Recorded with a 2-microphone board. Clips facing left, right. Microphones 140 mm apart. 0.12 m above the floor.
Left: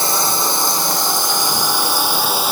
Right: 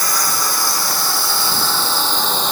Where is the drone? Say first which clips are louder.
Left 3 dB; 25° left (ahead or behind); by 2.5 s 10° left (ahead or behind).